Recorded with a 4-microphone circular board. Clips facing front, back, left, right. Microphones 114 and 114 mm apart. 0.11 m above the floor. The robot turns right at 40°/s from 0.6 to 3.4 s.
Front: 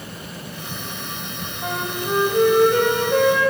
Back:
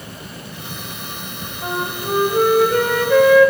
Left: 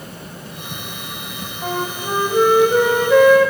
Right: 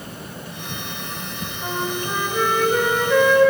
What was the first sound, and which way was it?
A flute, 110° left.